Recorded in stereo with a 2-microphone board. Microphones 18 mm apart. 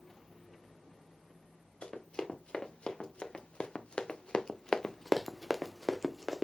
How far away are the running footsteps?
About 2.5 m.